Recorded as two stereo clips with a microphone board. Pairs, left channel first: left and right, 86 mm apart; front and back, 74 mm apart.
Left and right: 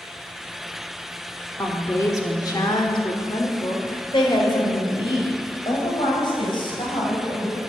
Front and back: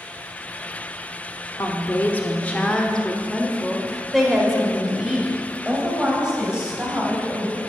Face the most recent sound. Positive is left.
turn(degrees=105)